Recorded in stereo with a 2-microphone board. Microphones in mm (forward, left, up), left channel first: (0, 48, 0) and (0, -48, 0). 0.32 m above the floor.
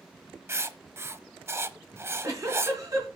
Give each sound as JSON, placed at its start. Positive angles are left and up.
{"t": 0.5, "sound": "writing", "side_deg": -30, "distance_m": 0.6}
{"t": 1.9, "sound": "a giggle", "side_deg": -35, "distance_m": 4.5}